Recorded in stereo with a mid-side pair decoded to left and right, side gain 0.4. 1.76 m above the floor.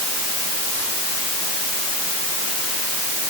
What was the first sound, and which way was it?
Only background noise.